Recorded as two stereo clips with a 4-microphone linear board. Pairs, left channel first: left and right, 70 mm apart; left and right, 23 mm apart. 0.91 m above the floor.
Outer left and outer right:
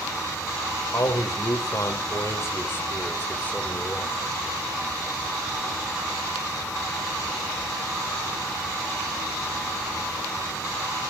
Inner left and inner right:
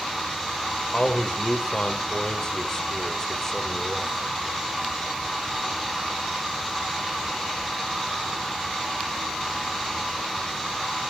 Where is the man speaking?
60° left (ahead or behind), 3 m; by 4.3 s 10° left (ahead or behind), 3 m.